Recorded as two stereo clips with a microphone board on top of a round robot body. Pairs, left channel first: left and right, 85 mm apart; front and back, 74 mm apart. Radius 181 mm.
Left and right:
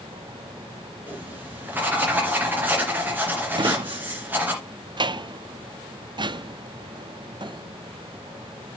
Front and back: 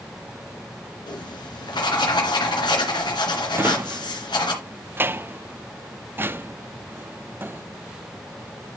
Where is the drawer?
120° right, 0.6 m.